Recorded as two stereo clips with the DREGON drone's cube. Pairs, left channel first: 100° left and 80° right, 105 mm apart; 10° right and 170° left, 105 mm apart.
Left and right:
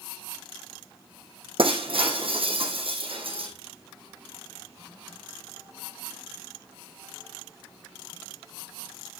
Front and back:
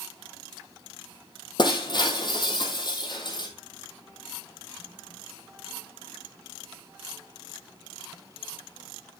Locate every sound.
1.6 s breaking glass: 55° right, 2.0 m